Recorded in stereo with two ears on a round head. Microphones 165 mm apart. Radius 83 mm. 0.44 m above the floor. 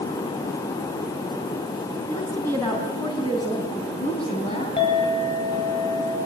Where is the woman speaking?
10° left (ahead or behind), 4 m; by 4.7 s 40° left (ahead or behind), 4 m.